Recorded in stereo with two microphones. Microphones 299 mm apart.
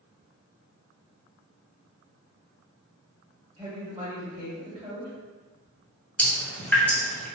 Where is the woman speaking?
20° right (ahead or behind), 1.4 m.